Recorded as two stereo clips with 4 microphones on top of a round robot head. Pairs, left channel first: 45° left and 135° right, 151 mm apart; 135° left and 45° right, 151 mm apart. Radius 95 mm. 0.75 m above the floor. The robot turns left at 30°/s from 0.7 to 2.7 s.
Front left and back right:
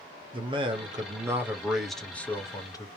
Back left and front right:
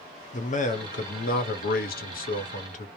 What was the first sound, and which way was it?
A man speaking, 170° left.